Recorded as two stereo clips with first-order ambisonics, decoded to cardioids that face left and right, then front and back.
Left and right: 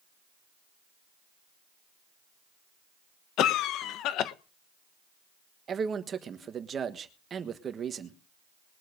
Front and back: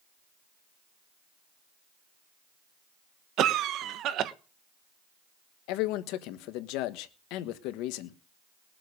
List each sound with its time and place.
3.4 s a cough: 135° left, 1.0 m
5.7 s a man speaking: 25° right, 1.3 m